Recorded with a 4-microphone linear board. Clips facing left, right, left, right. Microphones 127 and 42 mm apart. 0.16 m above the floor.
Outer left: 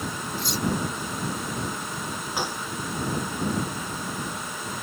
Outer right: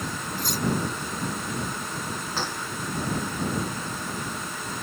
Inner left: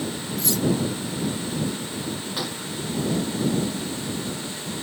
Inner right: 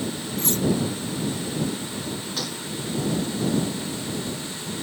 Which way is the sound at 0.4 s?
45° right (ahead or behind).